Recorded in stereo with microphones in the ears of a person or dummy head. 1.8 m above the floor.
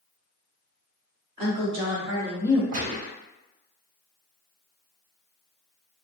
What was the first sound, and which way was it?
A woman speaking, 40° right (ahead or behind).